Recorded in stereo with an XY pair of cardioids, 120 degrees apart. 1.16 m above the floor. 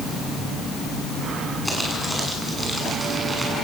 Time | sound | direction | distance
1.6 | crumpling | 10° right | 8 m